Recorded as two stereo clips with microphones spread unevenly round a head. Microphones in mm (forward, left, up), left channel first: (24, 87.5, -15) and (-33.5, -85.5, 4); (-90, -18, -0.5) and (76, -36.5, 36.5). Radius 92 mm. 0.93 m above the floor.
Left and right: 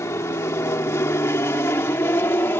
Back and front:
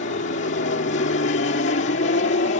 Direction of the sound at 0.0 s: 145° left.